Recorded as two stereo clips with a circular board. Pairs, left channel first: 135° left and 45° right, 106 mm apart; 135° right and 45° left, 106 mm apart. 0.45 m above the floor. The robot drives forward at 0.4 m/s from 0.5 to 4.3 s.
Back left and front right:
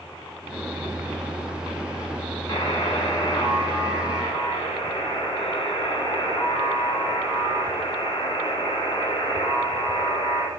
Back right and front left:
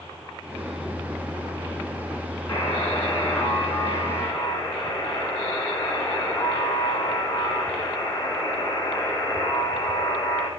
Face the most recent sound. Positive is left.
turn(degrees=-175)